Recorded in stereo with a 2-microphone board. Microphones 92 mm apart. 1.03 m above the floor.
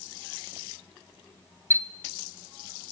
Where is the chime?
30° right (ahead or behind), 0.8 m.